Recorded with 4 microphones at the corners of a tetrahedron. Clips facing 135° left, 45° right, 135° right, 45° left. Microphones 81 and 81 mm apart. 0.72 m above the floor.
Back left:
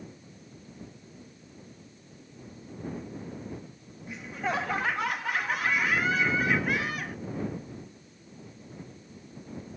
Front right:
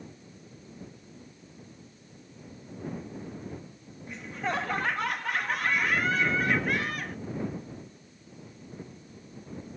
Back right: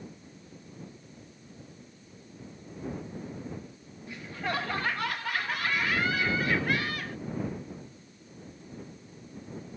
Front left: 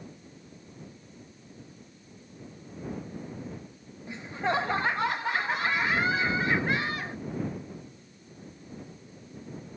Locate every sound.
4.1 s laughter: 45° left